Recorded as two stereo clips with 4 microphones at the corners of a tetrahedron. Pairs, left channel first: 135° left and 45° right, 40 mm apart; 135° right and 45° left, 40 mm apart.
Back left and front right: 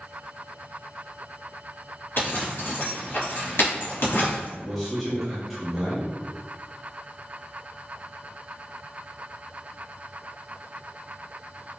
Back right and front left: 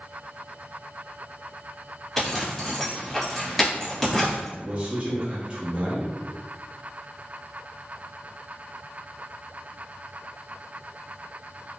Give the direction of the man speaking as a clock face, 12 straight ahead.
11 o'clock.